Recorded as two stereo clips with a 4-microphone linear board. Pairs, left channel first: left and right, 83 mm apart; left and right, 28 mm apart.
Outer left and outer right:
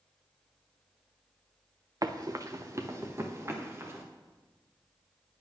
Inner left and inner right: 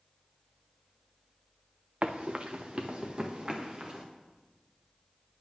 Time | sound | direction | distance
2.0 | running footsteps | 45° right (ahead or behind) | 0.7 m